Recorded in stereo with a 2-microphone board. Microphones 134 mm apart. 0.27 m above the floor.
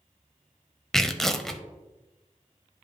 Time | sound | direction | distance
0.9 | tearing paper | 5° left (ahead or behind) | 0.6 m